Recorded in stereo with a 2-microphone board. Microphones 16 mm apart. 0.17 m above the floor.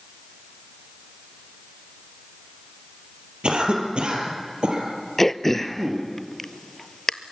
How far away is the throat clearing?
About 0.6 m.